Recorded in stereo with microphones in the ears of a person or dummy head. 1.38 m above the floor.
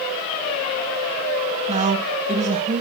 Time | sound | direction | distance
1.7 | a woman speaking | 35° right (ahead or behind) | 0.9 m